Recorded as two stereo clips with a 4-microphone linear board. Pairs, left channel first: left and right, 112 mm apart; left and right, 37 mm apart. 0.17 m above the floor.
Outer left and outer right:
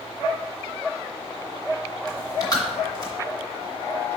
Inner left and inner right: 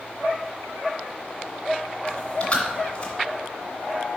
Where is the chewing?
35° left (ahead or behind), 1.9 m.